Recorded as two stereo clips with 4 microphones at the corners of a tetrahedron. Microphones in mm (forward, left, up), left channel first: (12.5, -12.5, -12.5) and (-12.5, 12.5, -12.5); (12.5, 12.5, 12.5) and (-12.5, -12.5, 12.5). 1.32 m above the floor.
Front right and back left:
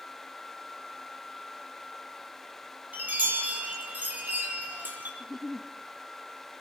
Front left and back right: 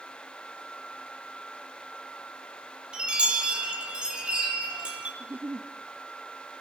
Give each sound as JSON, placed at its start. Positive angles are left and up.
{"t": 2.9, "sound": "a chime", "azimuth_deg": 165, "distance_m": 7.5}
{"t": 5.2, "sound": "a giggle", "azimuth_deg": -140, "distance_m": 1.6}